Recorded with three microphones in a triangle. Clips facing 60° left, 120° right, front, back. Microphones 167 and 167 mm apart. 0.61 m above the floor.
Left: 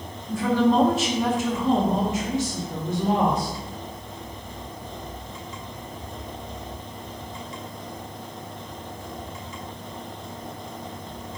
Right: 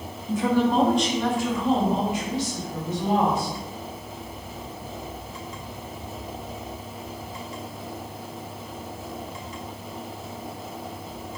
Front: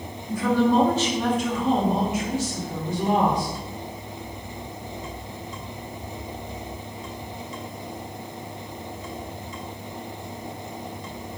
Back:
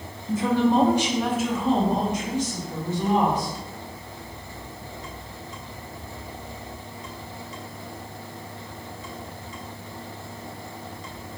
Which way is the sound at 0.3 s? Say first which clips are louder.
Left 1 dB, even; 155° right.